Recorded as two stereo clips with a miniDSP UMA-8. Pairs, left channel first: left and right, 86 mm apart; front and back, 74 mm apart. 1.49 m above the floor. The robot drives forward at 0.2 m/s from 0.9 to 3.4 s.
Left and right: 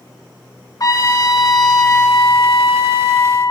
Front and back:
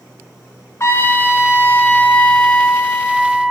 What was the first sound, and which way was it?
A trumpet, 50° left.